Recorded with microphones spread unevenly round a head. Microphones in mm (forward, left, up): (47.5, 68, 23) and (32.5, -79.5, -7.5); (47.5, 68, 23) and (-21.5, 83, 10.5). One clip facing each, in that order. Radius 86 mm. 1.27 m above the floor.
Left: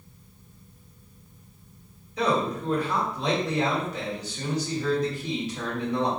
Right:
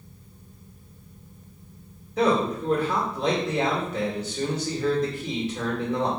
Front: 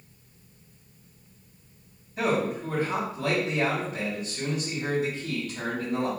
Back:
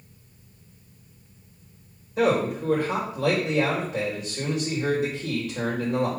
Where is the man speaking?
145° right, 1.7 m.